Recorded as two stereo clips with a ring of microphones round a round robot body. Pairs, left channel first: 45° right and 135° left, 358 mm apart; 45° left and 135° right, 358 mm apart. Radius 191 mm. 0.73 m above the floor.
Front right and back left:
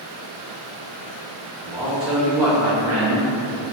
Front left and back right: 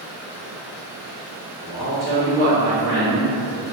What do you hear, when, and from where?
1.6 s a man speaking: 100° left, 1.1 m